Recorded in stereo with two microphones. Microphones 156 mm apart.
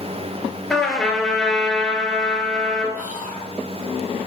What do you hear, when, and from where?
0.7 s a trumpet: centre (ahead or behind), 2 m
3.0 s whispering: 55° right (ahead or behind), 2.5 m